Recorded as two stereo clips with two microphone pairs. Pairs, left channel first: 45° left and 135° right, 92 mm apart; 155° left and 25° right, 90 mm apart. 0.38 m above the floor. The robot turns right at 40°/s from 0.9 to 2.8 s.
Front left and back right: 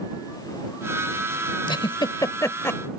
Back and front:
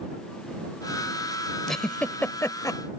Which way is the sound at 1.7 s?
65° left.